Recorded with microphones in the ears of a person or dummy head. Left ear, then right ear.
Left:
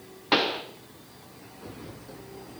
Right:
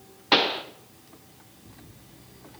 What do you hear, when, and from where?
0.3 s a pop: 10° right (ahead or behind), 0.6 m